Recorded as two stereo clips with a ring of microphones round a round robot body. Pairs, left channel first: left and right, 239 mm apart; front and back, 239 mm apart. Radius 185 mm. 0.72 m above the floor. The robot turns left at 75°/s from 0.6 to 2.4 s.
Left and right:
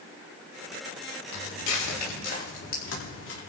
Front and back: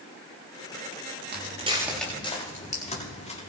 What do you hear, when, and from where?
1.3 s footsteps: 135° left, 6.5 m; by 3.4 s 60° left, 8 m